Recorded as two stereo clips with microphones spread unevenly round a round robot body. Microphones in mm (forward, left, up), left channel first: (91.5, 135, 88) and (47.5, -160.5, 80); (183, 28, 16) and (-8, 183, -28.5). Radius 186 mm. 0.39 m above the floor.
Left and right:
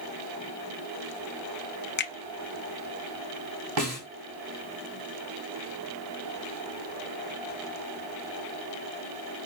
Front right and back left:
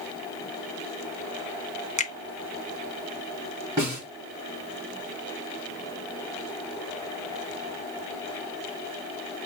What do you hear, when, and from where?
2.0 s a finger snap: 30° left, 1.1 m
3.8 s a snare drum: 140° right, 3.5 m